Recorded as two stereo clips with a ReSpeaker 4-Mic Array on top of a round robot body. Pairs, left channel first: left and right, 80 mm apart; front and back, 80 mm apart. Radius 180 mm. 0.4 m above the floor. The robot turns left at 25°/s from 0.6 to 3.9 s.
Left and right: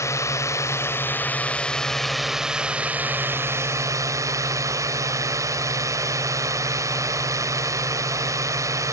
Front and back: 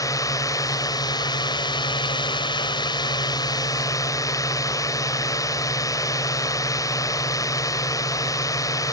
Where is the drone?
40° left; by 8.9 s 40° right.